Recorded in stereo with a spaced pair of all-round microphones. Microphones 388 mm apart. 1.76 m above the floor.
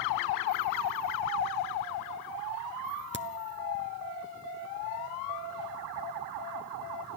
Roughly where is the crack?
Right.